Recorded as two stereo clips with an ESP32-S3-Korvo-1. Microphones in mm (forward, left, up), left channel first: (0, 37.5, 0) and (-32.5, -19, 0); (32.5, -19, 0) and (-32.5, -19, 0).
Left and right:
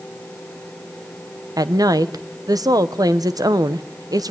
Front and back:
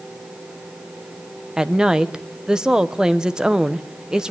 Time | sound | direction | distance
1.6 | a woman speaking | 100° right | 1.1 m